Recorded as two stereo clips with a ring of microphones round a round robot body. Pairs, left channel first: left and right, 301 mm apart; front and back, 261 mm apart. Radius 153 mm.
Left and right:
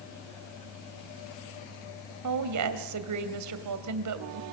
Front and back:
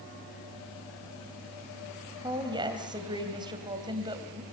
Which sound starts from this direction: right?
A woman speaking, at 2.2 s.